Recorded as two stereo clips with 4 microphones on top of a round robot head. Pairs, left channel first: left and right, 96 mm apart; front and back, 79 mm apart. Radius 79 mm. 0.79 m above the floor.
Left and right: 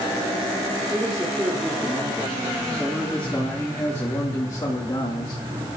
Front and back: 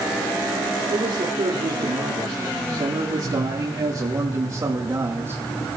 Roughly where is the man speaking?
Behind.